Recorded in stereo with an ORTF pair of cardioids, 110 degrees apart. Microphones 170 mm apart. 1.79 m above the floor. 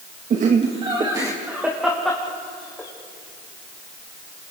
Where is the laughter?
50° right, 2.5 m; by 2.9 s 15° left, 4 m.